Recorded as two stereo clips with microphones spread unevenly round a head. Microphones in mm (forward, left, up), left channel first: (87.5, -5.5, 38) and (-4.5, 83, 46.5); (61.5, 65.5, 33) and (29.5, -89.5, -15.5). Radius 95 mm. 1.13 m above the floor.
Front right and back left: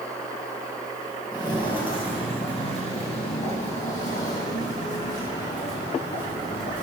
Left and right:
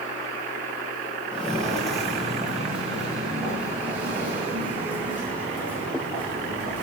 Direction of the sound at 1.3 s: 10° left.